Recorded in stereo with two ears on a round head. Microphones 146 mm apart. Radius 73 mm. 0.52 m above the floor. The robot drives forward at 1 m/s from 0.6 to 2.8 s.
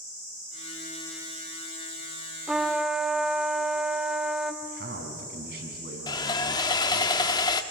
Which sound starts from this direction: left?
Sawing, at 6.1 s.